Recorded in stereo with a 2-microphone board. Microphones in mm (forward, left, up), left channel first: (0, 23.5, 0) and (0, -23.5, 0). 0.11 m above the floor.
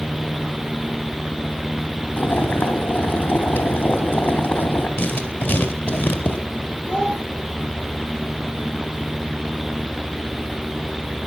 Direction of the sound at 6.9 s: 25° left (ahead or behind).